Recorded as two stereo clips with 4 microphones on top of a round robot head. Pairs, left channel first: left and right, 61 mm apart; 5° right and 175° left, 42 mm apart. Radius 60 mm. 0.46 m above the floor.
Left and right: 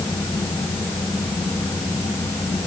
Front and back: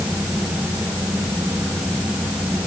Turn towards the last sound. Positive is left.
No sound to turn to.